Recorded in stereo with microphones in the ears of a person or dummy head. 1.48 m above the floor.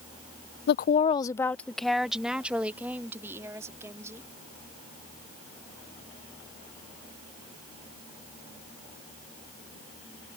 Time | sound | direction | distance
0.7 | a woman speaking | 65° left (ahead or behind) | ?